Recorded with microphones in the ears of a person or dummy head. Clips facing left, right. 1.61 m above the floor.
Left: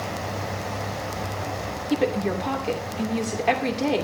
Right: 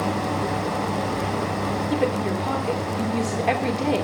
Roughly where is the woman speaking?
Centre.